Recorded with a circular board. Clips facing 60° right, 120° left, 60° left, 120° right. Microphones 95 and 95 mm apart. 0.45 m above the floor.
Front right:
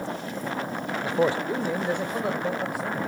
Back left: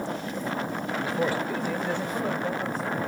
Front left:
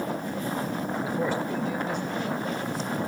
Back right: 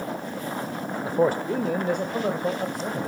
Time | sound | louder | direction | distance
1.1 | a man speaking | front right 5 dB, back right 8 dB | 105° right | 1.1 m